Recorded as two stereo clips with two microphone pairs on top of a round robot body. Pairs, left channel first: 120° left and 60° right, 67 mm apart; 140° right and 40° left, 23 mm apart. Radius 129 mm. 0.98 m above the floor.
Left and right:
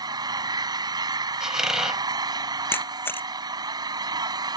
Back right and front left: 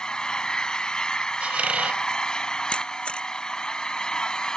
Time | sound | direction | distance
0.0 | an engine running | 90° right | ?
1.4 | a squeak | 15° left | ?
2.7 | a camera shutter | 175° left | ?